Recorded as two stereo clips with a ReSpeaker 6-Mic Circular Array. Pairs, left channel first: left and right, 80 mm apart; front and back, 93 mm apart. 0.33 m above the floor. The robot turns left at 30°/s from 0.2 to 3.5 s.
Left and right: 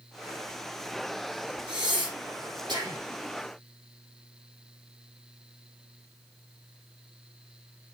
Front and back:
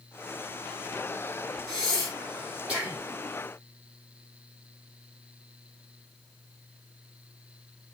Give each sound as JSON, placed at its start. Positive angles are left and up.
{"t": 1.7, "sound": "breathing", "azimuth_deg": -65, "distance_m": 4.0}